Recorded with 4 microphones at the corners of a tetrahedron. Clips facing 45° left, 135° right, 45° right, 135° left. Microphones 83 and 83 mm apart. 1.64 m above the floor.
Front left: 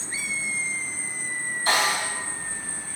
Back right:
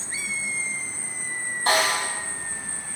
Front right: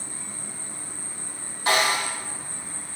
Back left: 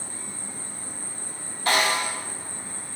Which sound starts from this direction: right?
An insect, at 0.0 s.